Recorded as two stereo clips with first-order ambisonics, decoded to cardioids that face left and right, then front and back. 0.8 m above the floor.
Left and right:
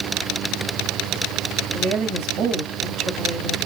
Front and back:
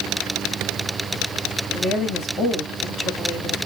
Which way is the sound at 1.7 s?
55° right.